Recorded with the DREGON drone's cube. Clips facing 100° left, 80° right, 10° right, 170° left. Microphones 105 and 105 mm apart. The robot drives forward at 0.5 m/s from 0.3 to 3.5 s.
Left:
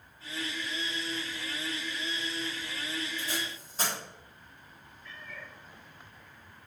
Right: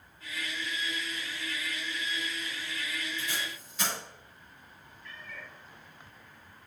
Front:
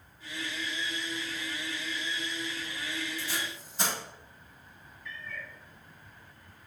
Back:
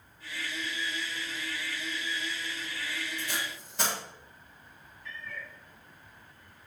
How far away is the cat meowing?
About 4.5 m.